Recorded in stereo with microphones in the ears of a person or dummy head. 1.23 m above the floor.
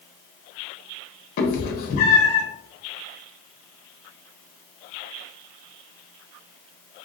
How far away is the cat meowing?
About 0.8 m.